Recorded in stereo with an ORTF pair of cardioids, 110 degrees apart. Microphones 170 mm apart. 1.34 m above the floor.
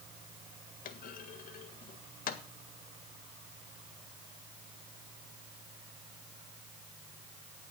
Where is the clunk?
55° left, 1.8 m.